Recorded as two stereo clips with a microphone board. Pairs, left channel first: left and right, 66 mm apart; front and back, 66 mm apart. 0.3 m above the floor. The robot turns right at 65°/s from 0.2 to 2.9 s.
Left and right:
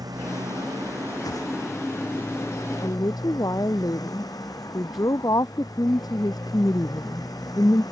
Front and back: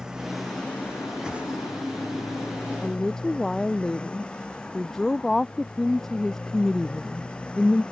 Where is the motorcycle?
100° right; by 7.9 s 75° left.